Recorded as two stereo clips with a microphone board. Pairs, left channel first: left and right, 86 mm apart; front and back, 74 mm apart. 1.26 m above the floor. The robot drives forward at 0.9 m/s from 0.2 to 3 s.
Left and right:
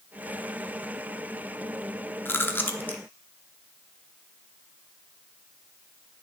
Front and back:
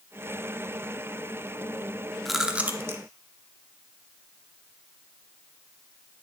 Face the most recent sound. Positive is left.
turn(degrees=150)